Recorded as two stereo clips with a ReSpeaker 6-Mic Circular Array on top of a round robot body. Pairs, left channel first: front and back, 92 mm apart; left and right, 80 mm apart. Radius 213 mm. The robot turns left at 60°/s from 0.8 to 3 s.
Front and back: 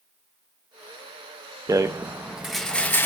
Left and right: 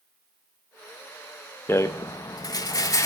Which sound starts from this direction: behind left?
A rattle, at 1.7 s.